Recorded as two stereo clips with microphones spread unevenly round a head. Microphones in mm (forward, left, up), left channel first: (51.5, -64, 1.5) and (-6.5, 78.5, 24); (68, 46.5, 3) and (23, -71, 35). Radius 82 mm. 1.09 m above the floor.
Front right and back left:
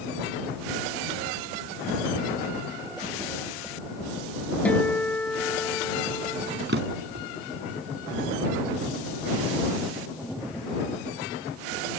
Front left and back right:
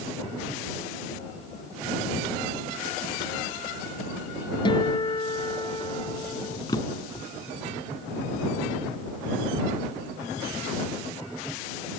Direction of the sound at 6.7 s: 140° left.